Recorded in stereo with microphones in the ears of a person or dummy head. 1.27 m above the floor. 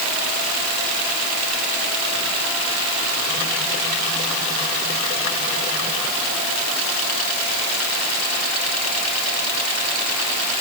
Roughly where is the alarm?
No alarm in this recording.